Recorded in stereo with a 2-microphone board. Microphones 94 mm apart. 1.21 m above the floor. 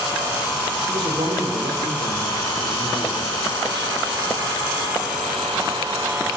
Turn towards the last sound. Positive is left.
turn(degrees=-65)  # may be behind; listen again after turning